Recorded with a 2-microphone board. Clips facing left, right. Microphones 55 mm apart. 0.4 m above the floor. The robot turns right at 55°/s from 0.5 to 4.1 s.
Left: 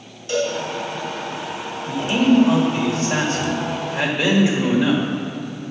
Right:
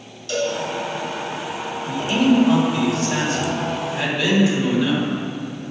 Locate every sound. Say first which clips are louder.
0.3 s a cowbell: left 1 dB; 20° left (ahead or behind), 3 m; by 0.5 s 25° left (ahead or behind), 3 m
1.9 s a man speaking: left 1 dB; 10° left, 1.7 m; by 5.0 s 130° left, 1.7 m